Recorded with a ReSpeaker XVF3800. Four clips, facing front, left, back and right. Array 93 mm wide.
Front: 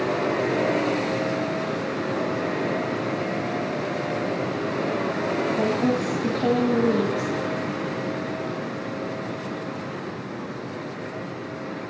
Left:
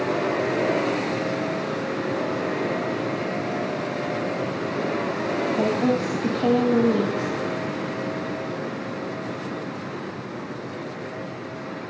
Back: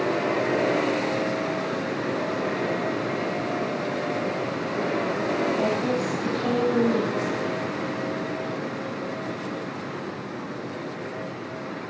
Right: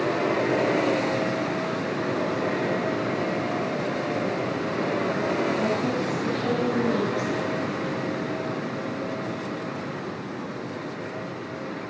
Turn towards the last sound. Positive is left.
turn(degrees=70)